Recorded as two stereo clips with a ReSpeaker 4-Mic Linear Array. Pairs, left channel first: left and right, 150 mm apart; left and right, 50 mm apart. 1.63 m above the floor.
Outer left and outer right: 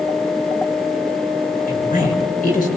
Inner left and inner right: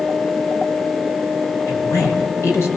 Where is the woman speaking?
60° left (ahead or behind), 7.5 m.